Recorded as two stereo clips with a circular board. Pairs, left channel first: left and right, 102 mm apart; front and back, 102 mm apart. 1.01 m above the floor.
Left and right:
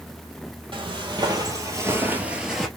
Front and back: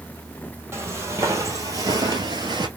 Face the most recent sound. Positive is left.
turn(degrees=175)